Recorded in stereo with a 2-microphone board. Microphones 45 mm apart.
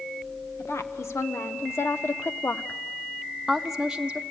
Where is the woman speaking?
85° left, 1.8 m; by 4.2 s 20° right (ahead or behind), 1.0 m.